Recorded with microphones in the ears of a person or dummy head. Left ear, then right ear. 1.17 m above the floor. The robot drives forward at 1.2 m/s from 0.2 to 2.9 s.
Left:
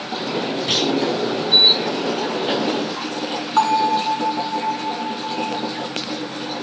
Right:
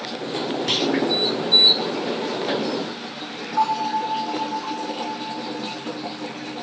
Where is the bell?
40° left (ahead or behind), 7.5 m.